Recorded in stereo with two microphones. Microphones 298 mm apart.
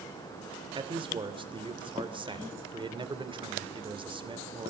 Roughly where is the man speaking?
Centre.